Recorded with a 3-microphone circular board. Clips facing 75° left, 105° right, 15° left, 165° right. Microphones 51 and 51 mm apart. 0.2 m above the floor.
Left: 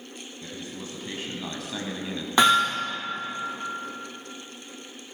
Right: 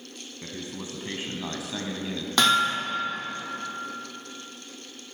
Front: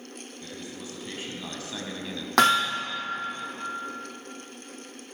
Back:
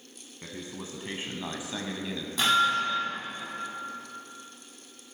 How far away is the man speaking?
About 1.5 m.